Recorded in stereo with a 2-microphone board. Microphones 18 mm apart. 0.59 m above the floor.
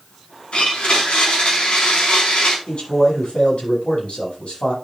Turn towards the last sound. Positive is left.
turn(degrees=80)